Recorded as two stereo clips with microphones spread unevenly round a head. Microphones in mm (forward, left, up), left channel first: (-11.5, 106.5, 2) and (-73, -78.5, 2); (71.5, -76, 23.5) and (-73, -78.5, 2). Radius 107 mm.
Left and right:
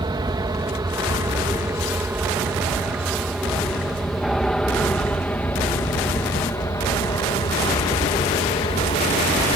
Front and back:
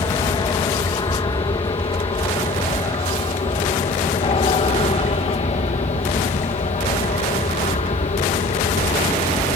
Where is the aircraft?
45° right; by 9.6 s 20° left.